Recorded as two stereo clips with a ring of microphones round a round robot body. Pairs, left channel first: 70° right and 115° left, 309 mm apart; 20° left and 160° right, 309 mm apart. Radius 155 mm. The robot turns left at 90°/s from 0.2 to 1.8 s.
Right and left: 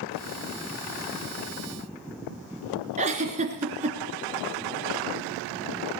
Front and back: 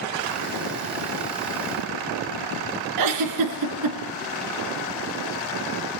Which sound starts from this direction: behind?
A giggle, at 3.0 s.